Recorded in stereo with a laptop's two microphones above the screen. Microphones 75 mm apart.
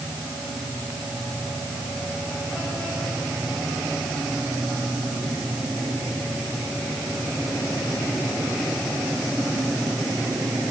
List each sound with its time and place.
Only background noise.